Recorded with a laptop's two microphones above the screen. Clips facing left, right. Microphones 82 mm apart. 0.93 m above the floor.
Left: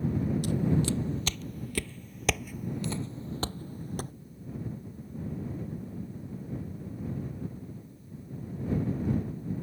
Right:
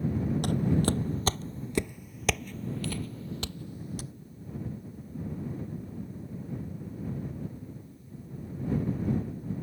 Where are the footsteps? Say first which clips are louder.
Right 2 dB; 60° right (ahead or behind); by 4.1 s 45° left (ahead or behind).